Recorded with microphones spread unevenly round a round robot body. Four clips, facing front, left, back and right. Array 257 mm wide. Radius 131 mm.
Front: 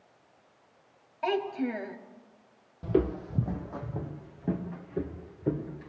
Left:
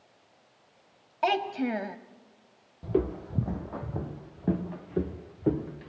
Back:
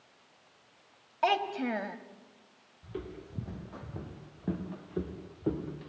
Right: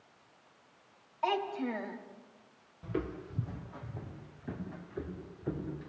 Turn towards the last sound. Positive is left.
turn(degrees=95)